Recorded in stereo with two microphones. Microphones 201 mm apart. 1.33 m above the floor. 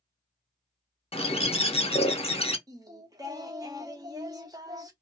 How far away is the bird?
About 0.5 m.